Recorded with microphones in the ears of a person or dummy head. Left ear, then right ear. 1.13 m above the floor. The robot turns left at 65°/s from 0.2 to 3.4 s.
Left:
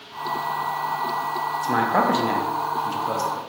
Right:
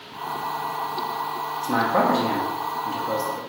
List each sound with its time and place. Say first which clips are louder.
1.6 s a man speaking: even; 20° left (ahead or behind), 0.6 m; by 3.4 s 5° left (ahead or behind), 0.6 m